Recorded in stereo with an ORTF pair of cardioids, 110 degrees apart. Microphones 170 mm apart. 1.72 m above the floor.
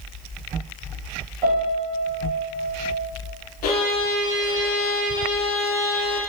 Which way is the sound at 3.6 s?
70° left.